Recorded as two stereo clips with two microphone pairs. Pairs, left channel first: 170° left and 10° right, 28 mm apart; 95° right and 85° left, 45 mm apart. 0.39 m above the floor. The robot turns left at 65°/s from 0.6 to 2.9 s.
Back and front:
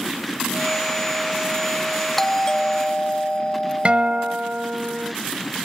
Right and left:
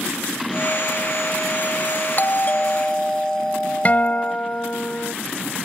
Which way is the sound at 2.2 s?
115° right.